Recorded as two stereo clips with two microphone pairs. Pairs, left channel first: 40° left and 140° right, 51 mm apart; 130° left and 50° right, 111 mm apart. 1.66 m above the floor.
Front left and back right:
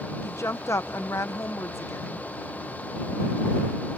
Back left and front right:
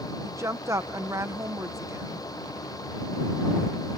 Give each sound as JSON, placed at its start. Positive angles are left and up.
{"t": 0.2, "sound": "a woman speaking", "azimuth_deg": 10}